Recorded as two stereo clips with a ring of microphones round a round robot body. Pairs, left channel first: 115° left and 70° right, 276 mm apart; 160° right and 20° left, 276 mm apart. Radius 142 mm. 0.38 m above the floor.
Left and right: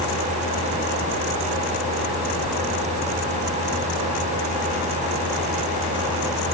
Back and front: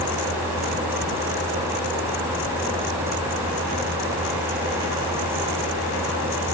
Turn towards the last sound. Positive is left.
No sound to turn to.